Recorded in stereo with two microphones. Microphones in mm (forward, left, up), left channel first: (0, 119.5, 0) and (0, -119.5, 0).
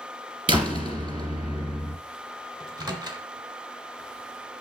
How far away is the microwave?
About 1.2 m.